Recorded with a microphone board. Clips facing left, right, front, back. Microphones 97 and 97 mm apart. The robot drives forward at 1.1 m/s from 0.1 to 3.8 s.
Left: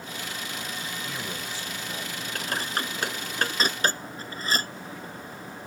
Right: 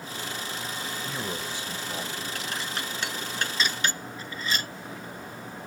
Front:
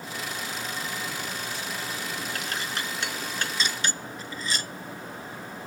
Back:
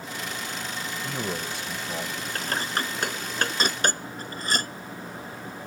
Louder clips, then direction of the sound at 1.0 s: Right 2 dB, back 3 dB; 160° right.